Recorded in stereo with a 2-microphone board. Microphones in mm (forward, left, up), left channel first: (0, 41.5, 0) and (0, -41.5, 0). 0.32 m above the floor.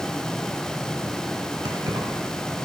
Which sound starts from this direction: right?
Keys jangling, at 1.6 s.